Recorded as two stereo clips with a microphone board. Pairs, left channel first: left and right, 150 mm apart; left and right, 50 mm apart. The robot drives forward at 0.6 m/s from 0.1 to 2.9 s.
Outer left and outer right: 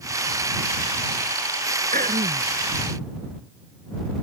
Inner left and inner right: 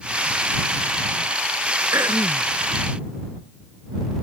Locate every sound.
1.9 s throat clearing: 70° right (ahead or behind)